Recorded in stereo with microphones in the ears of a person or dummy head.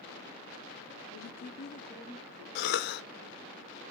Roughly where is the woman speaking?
Left.